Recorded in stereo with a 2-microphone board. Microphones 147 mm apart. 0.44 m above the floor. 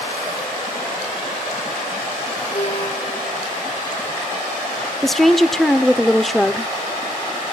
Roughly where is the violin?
Left.